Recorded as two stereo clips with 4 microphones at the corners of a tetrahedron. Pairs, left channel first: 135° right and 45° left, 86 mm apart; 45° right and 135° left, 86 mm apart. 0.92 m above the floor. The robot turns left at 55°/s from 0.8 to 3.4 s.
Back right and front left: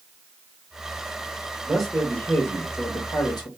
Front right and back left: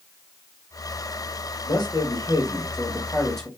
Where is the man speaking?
35° right, 1.6 m; by 3.5 s 130° right, 1.6 m.